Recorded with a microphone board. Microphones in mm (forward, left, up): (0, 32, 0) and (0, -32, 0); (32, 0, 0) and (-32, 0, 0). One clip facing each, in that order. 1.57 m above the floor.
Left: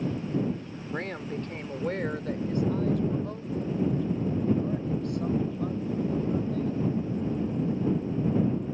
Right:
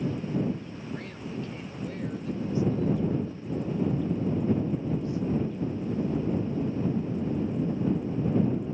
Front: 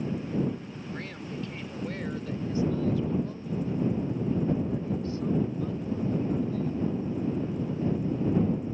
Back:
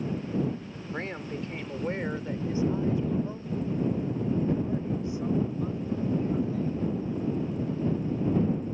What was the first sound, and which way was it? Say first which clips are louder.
A woman speaking: left 5 dB, back 4 dB; 125° left.